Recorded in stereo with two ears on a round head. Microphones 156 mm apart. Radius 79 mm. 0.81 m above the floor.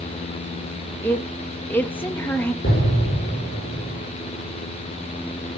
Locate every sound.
1.0 s a woman speaking: 10° left (ahead or behind), 1.1 m
2.6 s an explosion: 55° left (ahead or behind), 5 m